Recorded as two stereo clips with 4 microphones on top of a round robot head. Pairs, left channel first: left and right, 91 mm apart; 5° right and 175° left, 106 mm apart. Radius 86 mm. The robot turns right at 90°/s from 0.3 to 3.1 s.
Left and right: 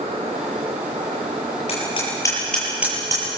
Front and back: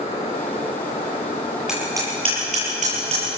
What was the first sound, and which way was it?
Hammering, 90° left.